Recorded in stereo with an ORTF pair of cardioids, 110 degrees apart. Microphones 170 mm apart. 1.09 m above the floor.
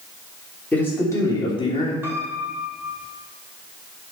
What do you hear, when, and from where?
0.7 s a man speaking: 10° left, 3 m; by 1.9 s 35° left, 3 m
2.0 s a piano: 10° right, 4.5 m